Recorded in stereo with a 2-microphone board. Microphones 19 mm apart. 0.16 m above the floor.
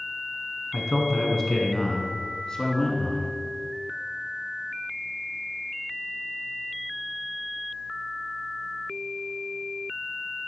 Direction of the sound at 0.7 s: Centre (ahead or behind).